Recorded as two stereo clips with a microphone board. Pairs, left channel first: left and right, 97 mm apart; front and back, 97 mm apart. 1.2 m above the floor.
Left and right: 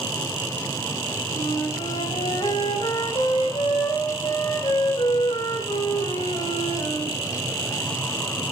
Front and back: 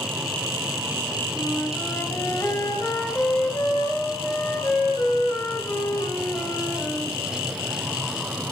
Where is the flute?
65° left, 2.5 m.